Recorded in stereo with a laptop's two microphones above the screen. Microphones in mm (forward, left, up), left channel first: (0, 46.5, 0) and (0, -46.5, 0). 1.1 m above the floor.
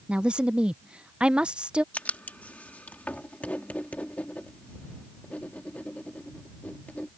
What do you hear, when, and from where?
0.1 s a woman speaking: 10° right (ahead or behind)
1.9 s writing: 15° left (ahead or behind)